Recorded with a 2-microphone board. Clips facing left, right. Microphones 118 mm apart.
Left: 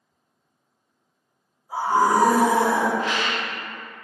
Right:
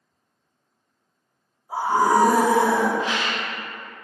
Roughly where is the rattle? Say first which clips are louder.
Even; right.